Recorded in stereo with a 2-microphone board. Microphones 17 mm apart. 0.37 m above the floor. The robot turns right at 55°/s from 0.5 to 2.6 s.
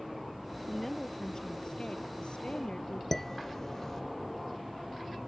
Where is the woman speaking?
Straight ahead; by 3.0 s 105° left.